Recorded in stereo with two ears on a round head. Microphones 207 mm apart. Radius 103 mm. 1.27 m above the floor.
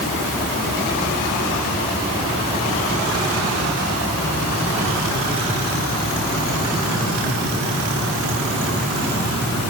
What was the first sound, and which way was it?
Only background noise.